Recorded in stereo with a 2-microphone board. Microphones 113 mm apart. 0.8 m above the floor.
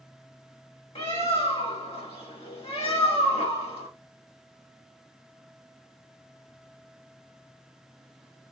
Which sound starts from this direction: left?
A bird, at 0.9 s.